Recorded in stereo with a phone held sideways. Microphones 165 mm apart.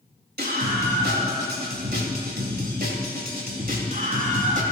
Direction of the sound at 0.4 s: 80° right.